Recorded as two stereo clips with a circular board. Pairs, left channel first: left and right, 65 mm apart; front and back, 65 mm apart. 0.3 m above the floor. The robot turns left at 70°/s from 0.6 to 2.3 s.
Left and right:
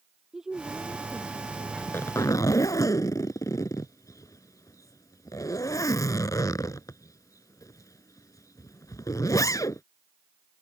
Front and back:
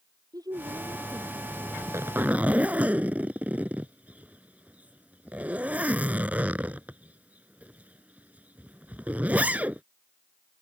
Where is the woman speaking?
170° right; by 1.7 s 115° left.